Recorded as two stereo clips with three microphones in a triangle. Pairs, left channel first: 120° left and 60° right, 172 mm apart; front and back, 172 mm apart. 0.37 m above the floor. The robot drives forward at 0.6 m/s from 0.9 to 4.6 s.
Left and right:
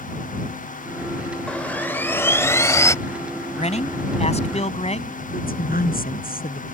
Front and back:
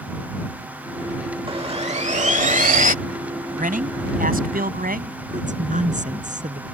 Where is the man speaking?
160° left; by 5.2 s 165° left.